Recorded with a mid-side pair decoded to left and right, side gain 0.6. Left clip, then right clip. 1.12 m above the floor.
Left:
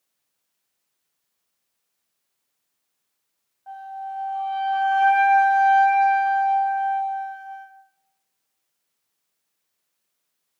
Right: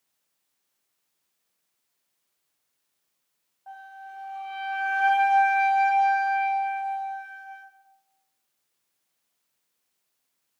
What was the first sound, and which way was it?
A flute, 10° left.